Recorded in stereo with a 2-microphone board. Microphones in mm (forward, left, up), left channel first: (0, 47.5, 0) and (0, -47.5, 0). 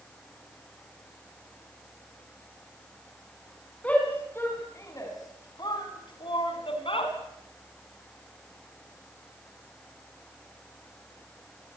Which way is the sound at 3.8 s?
15° left (ahead or behind).